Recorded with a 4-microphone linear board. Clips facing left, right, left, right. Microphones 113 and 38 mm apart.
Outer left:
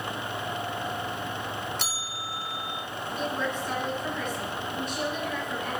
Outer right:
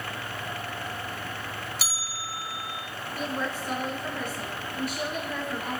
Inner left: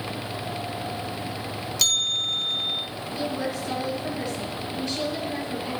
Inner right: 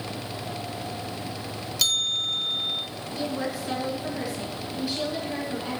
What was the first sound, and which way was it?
A bell, 5° right (ahead or behind).